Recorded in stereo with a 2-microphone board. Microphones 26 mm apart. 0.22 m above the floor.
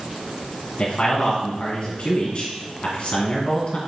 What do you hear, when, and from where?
0.8 s a man speaking: 45° left (ahead or behind), 1.5 m